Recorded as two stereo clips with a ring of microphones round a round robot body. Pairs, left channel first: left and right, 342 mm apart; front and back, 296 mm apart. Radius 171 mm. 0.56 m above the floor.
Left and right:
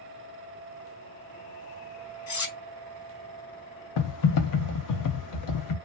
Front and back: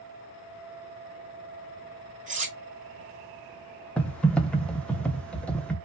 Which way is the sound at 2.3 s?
115° left.